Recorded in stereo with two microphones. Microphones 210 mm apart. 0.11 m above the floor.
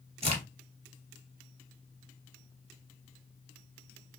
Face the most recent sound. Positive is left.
turn(degrees=-30)  # may be behind; listen again after turning